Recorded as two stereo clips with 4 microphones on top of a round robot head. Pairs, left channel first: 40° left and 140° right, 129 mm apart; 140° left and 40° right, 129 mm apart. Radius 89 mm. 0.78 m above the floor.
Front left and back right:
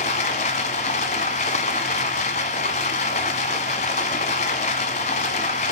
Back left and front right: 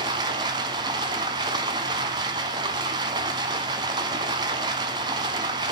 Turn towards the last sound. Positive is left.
turn(degrees=10)